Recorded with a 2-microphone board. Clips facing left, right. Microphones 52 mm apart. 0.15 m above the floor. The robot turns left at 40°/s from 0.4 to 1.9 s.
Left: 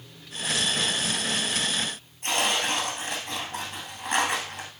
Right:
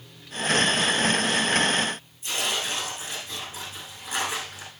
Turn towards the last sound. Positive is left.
turn(degrees=65)  # may be behind; listen again after turning